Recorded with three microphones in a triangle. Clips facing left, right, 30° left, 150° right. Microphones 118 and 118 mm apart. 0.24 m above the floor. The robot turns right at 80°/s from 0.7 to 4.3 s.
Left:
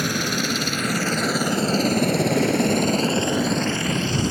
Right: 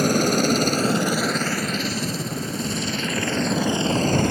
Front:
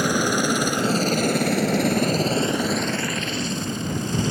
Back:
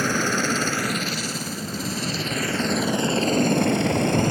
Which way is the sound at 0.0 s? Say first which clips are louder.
Right 6 dB, front 2 dB; 45° right.